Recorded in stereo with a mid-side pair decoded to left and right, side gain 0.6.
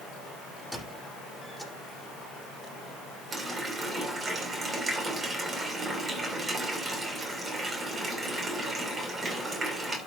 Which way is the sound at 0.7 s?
5° right.